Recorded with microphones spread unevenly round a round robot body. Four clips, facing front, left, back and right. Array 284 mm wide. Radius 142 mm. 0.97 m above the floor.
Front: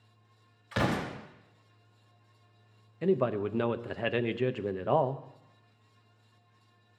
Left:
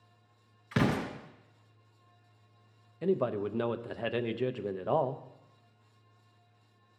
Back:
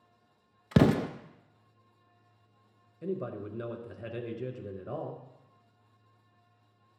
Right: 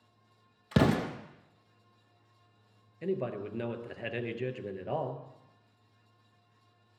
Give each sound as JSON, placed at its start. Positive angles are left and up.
{"t": 0.7, "sound": "an explosion", "azimuth_deg": -165, "distance_m": 0.6}
{"t": 3.0, "sound": "a man speaking", "azimuth_deg": 20, "distance_m": 0.7}